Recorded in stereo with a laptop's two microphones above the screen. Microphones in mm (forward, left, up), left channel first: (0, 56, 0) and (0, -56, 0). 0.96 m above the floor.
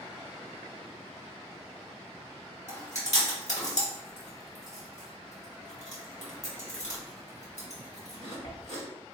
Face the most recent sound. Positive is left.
turn(degrees=80)